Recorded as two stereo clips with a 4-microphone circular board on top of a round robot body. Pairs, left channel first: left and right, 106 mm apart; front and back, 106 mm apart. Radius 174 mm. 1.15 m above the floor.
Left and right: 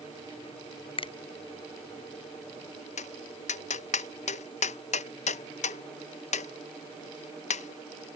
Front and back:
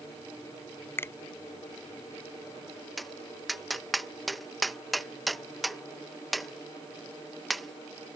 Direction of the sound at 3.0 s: 90° left.